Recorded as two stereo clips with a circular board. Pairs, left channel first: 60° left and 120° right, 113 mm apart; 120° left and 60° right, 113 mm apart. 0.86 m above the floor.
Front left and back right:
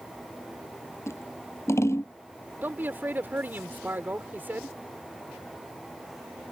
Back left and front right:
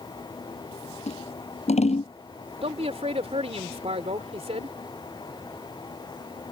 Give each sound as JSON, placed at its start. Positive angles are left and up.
{"t": 1.1, "sound": "scissors", "azimuth_deg": 125}
{"t": 2.6, "sound": "a man speaking", "azimuth_deg": -50}